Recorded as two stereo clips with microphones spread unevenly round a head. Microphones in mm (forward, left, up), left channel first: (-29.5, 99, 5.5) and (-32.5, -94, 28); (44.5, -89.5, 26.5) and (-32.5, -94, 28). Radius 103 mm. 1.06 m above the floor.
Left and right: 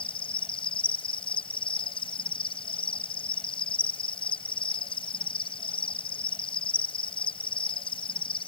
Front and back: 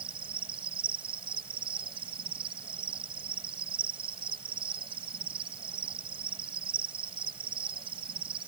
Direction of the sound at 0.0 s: 155° left.